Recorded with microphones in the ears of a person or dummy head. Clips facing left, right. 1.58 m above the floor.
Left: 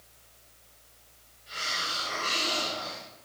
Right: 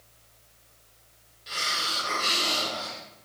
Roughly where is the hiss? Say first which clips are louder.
Right 3 dB; right.